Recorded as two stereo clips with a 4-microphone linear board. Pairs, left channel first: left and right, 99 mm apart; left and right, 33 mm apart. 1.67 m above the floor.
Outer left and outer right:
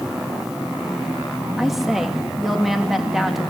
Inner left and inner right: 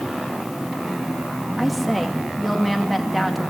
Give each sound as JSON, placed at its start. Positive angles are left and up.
{"t": 1.6, "sound": "a woman speaking", "side_deg": 0, "distance_m": 2.5}